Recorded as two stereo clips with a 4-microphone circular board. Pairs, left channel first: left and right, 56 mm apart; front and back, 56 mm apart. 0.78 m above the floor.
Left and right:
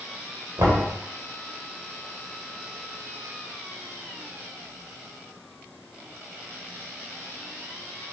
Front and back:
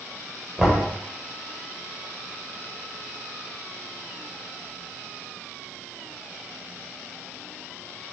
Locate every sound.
0.6 s knocking: 100° right, 2.5 m